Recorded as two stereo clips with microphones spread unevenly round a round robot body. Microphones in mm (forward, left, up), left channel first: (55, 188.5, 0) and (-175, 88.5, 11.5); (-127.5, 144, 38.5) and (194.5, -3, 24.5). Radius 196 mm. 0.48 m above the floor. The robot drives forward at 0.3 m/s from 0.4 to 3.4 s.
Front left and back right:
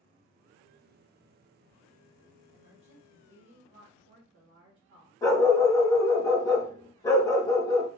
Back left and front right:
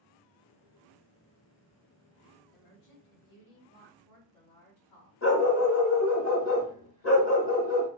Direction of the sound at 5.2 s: 100° left.